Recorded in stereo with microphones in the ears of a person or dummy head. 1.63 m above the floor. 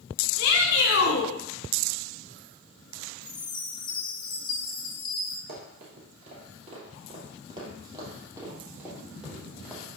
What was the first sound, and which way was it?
A shout, 80° left.